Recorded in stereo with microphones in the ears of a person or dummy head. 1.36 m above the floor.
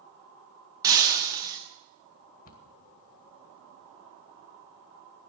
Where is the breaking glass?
20° right (ahead or behind), 1.1 m.